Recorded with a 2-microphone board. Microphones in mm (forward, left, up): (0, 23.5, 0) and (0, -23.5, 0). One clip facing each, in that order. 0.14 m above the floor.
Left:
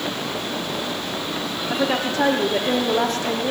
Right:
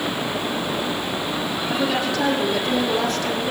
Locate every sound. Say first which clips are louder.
1.7 s a woman speaking: left 1 dB; 35° left (ahead or behind), 6 m